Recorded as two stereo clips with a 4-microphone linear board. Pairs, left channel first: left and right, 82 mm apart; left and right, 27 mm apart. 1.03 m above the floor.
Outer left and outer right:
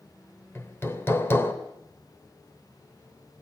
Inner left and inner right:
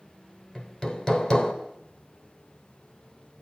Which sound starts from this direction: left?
Hammering, at 0.6 s.